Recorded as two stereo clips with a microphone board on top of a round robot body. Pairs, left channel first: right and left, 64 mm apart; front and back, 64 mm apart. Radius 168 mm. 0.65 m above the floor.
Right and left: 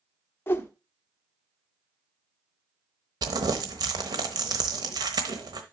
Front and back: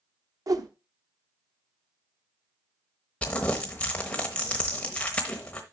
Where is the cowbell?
I don't hear a cowbell.